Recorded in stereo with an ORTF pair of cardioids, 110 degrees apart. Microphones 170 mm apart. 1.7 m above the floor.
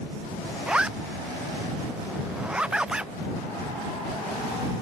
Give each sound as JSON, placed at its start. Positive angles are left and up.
{"t": 0.7, "sound": "a zipper", "azimuth_deg": -5}